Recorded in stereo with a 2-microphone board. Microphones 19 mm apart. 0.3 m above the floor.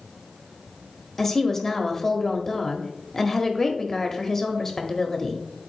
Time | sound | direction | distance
1.2 | a woman speaking | 20° left (ahead or behind) | 0.9 m